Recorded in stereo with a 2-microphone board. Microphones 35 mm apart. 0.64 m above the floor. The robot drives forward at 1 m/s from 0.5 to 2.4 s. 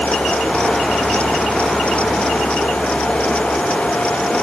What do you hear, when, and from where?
Only background noise.